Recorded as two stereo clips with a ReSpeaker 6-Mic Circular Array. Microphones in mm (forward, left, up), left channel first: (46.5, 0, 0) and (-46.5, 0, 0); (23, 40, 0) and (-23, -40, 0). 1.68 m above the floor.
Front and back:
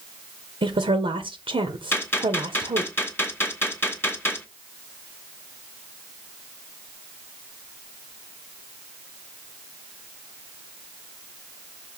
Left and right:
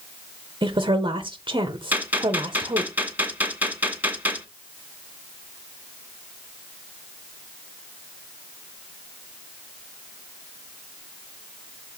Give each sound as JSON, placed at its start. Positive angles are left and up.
{"t": 0.6, "sound": "a woman speaking", "azimuth_deg": -160, "distance_m": 0.8}
{"t": 1.9, "sound": "a gunshot", "azimuth_deg": -55, "distance_m": 1.6}